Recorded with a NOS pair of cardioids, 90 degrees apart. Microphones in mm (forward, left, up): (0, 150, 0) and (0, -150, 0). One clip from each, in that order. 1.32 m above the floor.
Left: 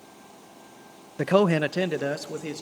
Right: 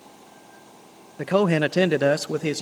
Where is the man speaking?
20° left, 0.8 m; by 2.6 s 55° right, 1.6 m.